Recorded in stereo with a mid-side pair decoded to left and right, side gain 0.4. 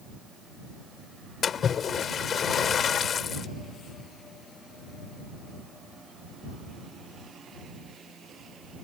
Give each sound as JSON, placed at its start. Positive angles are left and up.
{"t": 1.4, "sound": "a splash", "azimuth_deg": 60}